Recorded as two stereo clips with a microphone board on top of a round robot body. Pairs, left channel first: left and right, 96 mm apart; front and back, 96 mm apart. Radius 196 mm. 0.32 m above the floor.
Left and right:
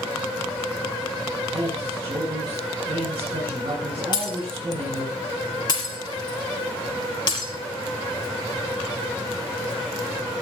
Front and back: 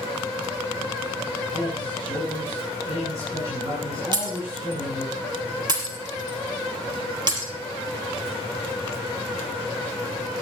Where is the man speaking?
120° right, 7 m.